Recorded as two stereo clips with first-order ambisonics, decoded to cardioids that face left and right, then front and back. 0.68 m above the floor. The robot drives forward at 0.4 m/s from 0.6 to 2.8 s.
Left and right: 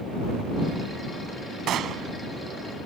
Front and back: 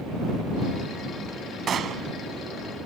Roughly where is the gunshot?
Behind right.